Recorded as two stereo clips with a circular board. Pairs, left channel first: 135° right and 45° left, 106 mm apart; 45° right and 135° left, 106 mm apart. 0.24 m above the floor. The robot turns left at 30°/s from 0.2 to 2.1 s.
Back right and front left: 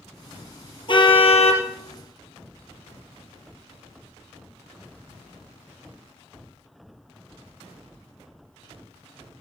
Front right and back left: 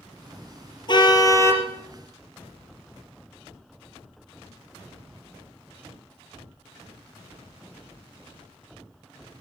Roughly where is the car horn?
Right.